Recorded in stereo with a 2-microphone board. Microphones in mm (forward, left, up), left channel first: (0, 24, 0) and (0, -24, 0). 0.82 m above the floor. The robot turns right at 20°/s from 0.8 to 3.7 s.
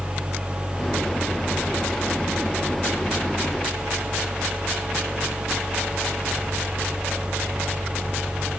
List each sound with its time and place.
Only background noise.